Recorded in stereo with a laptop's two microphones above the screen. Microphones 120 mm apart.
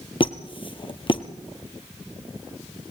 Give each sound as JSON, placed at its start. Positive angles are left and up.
{"t": 0.2, "sound": "a squeak", "side_deg": 45, "distance_m": 1.3}